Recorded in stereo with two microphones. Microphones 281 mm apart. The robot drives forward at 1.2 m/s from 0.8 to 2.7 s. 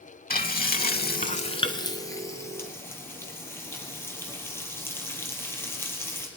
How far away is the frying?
About 0.6 m.